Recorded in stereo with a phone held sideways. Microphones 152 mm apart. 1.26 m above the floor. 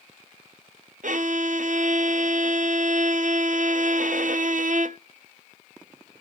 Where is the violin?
65° right (ahead or behind), 0.6 m.